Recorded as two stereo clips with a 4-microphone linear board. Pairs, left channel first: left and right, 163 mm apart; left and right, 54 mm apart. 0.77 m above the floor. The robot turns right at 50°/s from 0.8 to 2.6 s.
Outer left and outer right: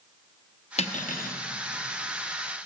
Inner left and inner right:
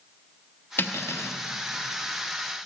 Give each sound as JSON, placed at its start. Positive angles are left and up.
{"t": 0.8, "sound": "cutlery clinking", "side_deg": 40, "distance_m": 0.7}